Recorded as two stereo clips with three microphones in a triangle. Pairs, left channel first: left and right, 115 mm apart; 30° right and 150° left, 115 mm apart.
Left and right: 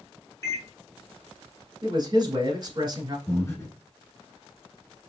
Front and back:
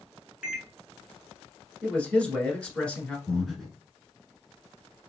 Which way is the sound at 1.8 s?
105° right.